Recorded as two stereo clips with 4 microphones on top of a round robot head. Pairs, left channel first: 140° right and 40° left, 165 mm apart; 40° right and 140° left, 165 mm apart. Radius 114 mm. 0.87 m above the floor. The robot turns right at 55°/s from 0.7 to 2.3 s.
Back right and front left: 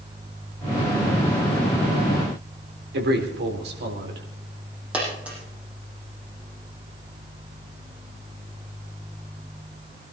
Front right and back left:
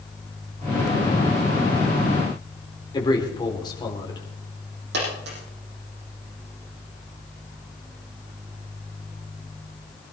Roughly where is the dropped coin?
Behind left.